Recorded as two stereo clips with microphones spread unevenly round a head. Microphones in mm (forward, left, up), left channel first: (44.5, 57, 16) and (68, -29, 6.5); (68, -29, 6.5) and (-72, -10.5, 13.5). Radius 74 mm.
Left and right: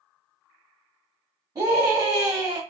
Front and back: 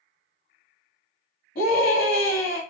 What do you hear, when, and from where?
1.6 s a scream: 25° right, 1.4 m